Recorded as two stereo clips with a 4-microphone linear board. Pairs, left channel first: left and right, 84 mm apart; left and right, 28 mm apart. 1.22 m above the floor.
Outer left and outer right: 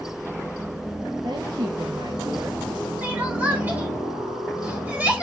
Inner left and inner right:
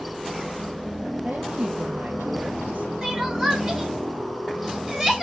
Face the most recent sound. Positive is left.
turn(degrees=-20)  # may be behind; listen again after turning